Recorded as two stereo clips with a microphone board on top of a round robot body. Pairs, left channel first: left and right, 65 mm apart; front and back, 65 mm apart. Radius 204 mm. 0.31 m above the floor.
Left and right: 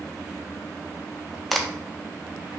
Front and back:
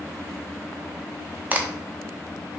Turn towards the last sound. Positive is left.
turn(degrees=175)